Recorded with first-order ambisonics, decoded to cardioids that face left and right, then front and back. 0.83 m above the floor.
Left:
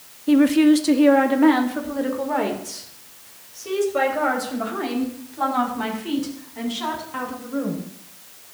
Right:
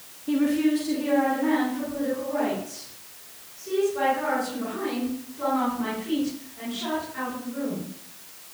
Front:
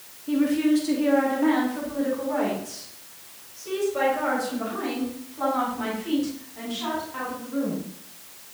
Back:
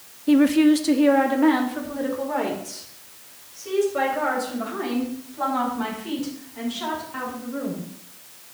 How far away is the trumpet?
I don't hear a trumpet.